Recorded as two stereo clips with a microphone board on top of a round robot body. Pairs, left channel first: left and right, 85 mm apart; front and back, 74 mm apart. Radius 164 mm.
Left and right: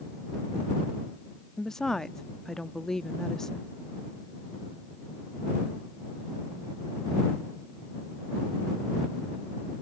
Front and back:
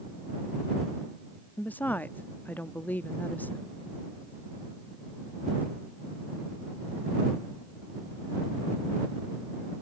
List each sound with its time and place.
1.6 s a woman speaking: 15° left